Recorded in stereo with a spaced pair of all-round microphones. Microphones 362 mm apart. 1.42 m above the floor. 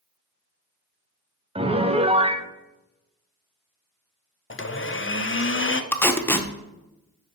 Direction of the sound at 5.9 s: 5° left (ahead or behind).